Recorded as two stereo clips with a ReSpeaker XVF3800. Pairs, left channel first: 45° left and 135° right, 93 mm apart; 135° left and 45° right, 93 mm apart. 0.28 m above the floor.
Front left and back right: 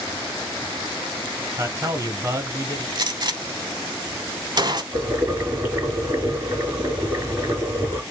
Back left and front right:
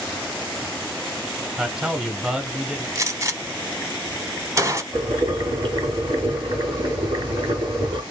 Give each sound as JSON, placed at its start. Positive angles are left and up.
{"t": 1.6, "sound": "a man speaking", "azimuth_deg": -120, "distance_m": 1.4}
{"t": 3.0, "sound": "a gunshot", "azimuth_deg": -100, "distance_m": 0.8}
{"t": 4.9, "sound": "boiling", "azimuth_deg": -70, "distance_m": 3.5}